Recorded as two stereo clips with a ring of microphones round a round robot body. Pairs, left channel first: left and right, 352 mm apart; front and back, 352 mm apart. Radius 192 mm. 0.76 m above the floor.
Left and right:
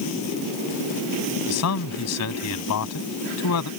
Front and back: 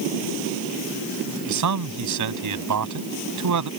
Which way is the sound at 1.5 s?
140° left.